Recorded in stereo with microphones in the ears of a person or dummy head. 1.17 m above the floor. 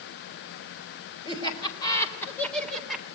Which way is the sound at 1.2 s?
25° left (ahead or behind).